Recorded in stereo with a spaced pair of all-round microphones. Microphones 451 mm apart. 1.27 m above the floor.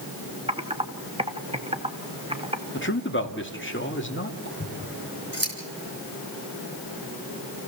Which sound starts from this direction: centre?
Typing on a keyboard, at 0.5 s.